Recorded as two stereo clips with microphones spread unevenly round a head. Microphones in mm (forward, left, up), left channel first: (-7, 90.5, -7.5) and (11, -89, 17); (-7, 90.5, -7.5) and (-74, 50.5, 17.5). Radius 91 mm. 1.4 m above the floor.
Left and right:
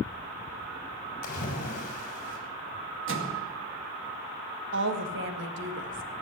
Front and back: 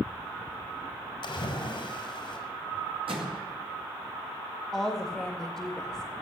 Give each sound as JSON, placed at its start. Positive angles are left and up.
{"t": 1.2, "sound": "a splash", "azimuth_deg": 45, "distance_m": 4.5}
{"t": 3.1, "sound": "a microwave", "azimuth_deg": -105, "distance_m": 2.0}
{"t": 4.7, "sound": "a woman speaking", "azimuth_deg": -60, "distance_m": 1.8}